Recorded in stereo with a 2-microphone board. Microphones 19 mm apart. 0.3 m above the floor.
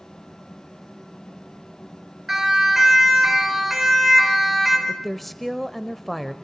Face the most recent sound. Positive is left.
turn(degrees=5)  # may be behind; listen again after turning